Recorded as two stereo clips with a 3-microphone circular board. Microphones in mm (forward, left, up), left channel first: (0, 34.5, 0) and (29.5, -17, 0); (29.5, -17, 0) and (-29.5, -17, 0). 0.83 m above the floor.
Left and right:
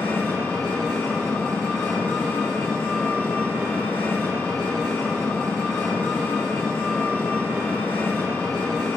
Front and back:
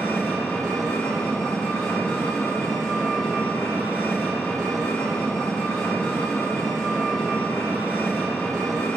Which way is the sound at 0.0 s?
75° left.